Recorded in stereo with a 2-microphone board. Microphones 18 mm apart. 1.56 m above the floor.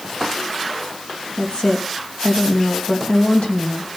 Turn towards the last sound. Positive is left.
turn(degrees=90)